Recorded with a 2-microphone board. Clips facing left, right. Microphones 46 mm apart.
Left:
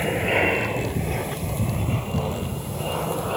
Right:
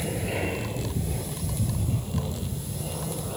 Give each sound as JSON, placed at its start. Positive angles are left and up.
{"t": 0.0, "sound": "an aircraft", "side_deg": 50}